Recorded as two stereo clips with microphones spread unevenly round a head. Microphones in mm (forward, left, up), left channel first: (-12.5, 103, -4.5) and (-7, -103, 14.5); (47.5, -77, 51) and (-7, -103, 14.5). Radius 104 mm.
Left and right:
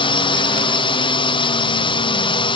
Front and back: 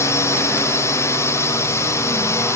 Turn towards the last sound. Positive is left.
turn(degrees=100)